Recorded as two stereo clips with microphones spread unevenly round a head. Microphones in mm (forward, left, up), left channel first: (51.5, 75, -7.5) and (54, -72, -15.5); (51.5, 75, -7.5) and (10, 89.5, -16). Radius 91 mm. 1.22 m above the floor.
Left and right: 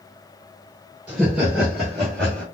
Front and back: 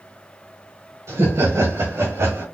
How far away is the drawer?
I don't hear a drawer.